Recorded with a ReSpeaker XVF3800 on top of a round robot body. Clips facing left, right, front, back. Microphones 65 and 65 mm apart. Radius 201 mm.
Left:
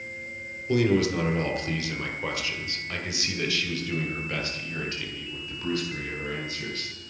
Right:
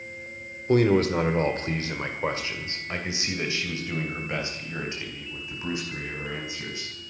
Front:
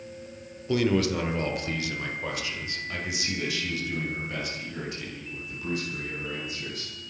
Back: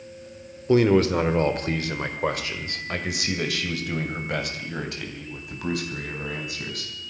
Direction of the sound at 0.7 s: 125° right.